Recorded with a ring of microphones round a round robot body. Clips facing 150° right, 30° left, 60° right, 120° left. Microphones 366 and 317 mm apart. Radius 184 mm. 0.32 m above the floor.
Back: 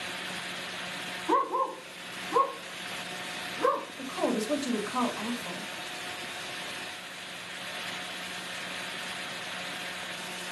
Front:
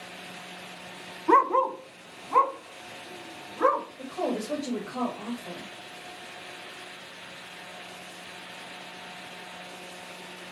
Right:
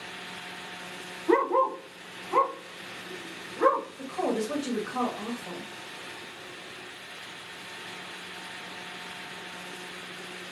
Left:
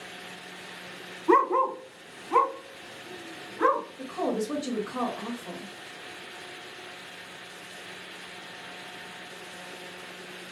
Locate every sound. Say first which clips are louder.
1.3 s a dog barking: front 6 dB, even; 45° left, 0.6 m; by 3.9 s 60° left, 2.0 m
4.0 s a woman speaking: back 3 dB, even; 150° right, 1.6 m